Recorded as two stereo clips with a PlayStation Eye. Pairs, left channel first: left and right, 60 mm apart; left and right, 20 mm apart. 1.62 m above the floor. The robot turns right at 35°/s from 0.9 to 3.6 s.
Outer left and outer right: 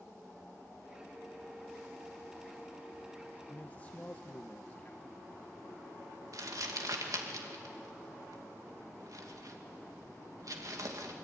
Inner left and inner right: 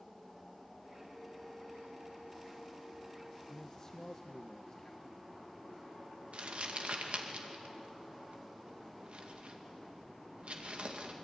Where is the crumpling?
70° right (ahead or behind), 2.5 m.